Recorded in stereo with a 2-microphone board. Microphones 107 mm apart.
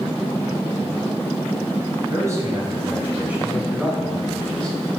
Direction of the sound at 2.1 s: 30° right (ahead or behind).